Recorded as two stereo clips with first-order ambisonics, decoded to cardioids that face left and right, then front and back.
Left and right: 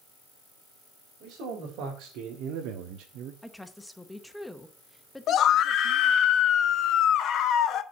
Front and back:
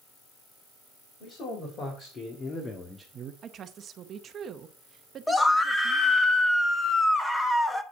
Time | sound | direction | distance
1.2 | a man speaking | 50° right | 3 m
3.4 | a woman speaking | 175° left | 0.7 m
5.3 | a scream | 75° left | 0.9 m